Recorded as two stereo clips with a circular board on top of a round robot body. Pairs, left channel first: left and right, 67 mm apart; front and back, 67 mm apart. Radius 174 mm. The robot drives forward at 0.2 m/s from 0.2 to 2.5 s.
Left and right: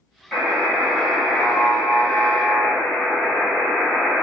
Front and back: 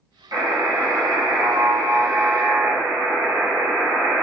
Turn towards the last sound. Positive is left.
turn(degrees=165)